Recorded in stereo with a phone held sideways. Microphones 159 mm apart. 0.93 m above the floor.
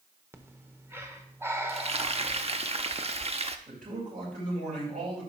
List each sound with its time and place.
0.3 s breathing: 15° right (ahead or behind), 0.8 m
1.7 s frying: 40° right (ahead or behind), 0.5 m
3.7 s a man speaking: 65° right (ahead or behind), 4.5 m